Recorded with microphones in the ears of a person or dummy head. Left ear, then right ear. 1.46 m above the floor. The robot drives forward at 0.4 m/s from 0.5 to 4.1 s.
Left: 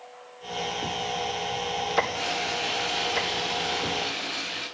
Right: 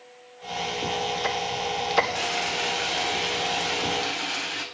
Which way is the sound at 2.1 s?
10° right (ahead or behind).